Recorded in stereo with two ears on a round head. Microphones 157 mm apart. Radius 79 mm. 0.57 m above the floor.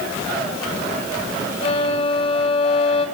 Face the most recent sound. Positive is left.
turn(degrees=35)  # may be behind; listen again after turning